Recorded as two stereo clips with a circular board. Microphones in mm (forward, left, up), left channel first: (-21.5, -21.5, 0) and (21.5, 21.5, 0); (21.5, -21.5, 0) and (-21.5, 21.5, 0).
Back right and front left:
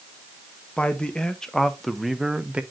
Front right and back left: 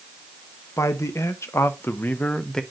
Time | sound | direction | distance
0.8 | a man speaking | 65° right | 1.1 m